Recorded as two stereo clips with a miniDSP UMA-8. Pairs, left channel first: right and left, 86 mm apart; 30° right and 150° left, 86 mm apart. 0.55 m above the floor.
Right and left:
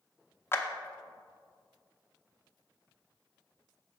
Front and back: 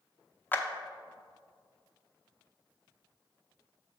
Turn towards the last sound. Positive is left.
turn(degrees=-70)